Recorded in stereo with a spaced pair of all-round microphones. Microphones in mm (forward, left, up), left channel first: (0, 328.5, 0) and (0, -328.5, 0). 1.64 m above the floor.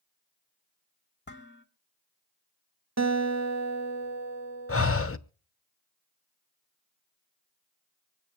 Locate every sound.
1.3 s dishes clattering: 15° left (ahead or behind), 1.8 m
3.0 s a guitar: 25° right (ahead or behind), 0.9 m
4.7 s breathing: 20° left (ahead or behind), 0.6 m